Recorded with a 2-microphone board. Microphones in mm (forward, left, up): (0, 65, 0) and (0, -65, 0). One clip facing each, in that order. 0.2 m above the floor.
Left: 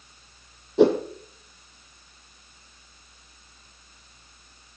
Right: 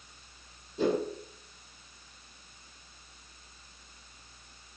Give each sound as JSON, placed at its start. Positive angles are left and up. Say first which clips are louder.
{"t": 0.8, "sound": "a whoosh", "louder": "left 10 dB", "side_deg": 80, "distance_m": 1.5}